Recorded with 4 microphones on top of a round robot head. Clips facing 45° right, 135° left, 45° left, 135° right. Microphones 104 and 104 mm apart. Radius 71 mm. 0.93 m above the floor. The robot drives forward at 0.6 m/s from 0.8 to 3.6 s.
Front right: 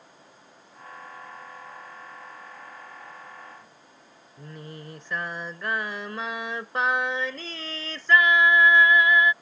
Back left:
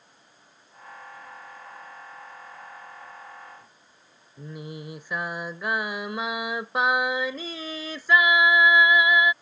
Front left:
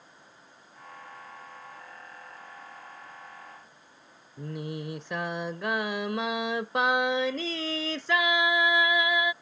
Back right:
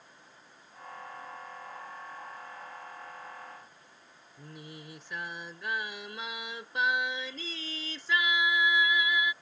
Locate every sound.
4.4 s singing: 55° left